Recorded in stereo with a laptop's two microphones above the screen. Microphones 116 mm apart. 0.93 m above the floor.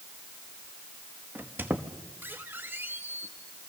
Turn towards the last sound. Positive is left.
turn(degrees=-15)  # may be behind; listen again after turning